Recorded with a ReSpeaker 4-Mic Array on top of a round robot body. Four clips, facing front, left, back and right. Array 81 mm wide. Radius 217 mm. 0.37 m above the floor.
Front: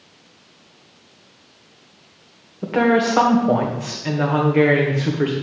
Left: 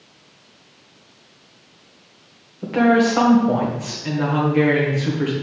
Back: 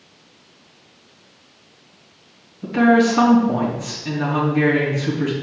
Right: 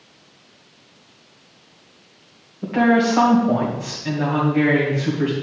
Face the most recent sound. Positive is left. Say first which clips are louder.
# left 1 dB, back 2 dB
turn(degrees=10)